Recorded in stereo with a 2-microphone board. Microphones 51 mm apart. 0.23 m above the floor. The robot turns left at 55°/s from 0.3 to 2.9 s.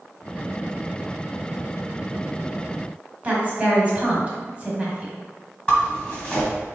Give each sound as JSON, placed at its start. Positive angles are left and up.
{"t": 3.2, "sound": "a woman speaking", "side_deg": -25, "distance_m": 1.6}
{"t": 5.7, "sound": "a zipper", "side_deg": 20, "distance_m": 1.1}